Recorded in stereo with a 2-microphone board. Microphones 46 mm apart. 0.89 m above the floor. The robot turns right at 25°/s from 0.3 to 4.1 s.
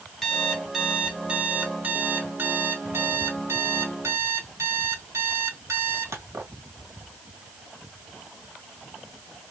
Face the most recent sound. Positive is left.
turn(degrees=-85)